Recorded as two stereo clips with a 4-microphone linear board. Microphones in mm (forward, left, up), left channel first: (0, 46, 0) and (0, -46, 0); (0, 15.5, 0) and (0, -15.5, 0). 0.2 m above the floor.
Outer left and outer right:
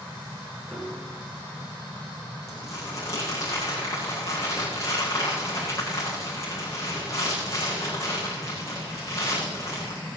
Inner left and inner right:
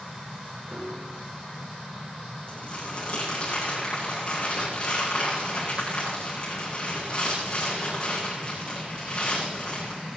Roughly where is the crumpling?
Left.